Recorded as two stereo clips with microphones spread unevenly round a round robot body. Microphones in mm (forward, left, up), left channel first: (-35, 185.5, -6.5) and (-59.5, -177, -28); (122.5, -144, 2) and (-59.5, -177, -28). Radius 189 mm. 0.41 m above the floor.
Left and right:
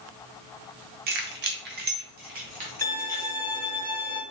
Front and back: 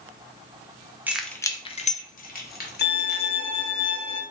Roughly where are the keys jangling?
Behind right.